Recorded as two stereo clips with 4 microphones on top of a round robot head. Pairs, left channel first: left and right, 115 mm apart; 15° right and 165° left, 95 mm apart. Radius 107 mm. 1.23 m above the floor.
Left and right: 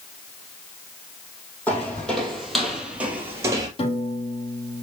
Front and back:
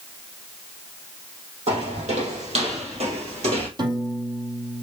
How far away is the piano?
About 2 m.